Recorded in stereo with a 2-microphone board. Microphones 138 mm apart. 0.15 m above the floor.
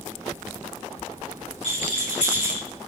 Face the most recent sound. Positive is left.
turn(degrees=85)